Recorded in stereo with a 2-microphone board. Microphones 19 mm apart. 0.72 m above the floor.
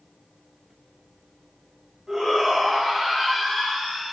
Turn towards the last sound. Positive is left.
turn(degrees=-15)  # may be behind; listen again after turning